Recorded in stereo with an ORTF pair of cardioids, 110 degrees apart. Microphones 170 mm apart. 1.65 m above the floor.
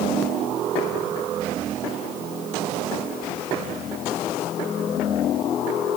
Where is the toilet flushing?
I don't hear a toilet flushing.